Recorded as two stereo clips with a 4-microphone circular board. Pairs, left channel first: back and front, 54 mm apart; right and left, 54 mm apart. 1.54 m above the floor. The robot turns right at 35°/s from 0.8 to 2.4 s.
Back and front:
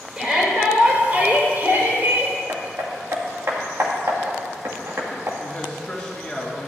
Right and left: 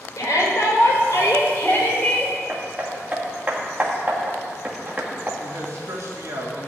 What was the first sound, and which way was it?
A shout, 75° right.